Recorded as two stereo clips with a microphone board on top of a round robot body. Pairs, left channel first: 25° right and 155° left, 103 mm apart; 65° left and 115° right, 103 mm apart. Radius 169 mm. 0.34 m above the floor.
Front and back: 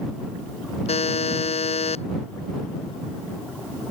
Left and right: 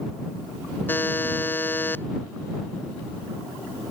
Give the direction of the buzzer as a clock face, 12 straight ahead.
12 o'clock.